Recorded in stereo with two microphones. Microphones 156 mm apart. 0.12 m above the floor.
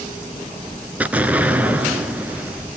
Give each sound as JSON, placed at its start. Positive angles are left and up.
{"t": 1.0, "sound": "an explosion", "side_deg": -10, "distance_m": 0.9}